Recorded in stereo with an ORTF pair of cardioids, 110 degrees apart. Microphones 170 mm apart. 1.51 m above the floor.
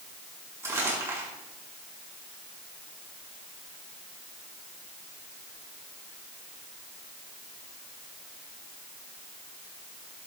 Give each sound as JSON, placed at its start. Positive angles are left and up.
{"t": 0.6, "sound": "crumpling", "azimuth_deg": -20, "distance_m": 5.5}